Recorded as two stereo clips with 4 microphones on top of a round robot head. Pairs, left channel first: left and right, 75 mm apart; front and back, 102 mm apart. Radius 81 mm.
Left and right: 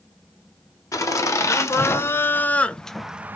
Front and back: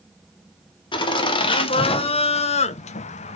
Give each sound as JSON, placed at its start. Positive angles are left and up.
{"t": 0.9, "sound": "laughter", "azimuth_deg": 45, "distance_m": 1.5}